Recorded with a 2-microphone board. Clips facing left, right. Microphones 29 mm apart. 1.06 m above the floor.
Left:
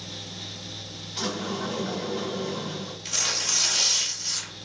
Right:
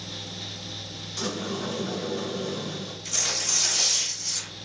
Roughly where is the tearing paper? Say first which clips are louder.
Left 1 dB; left.